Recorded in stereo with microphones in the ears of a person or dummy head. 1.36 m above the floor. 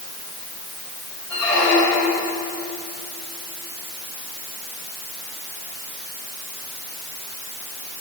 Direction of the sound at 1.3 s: 10° left (ahead or behind).